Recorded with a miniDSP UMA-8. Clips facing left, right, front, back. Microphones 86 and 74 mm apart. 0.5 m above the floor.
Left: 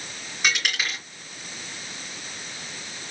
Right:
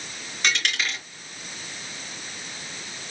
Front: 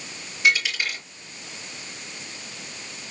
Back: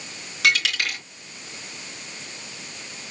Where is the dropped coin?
175° left, 4 m.